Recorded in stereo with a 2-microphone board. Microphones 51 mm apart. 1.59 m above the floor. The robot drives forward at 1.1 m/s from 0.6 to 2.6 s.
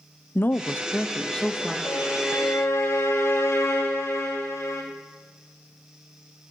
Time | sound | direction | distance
0.3 | a woman speaking | 40° left (ahead or behind) | 0.6 m
1.9 | a violin | 85° left | 7.5 m